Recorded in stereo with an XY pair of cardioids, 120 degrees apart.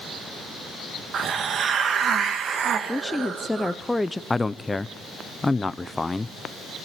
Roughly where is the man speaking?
Ahead.